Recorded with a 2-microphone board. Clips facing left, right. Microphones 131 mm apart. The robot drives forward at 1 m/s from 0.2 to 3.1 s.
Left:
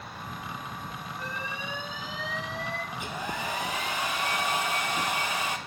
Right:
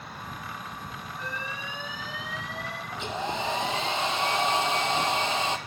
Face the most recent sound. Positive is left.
turn(degrees=-25)  # may be behind; listen again after turning